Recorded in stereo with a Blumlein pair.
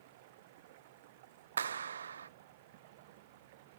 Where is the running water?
50° right.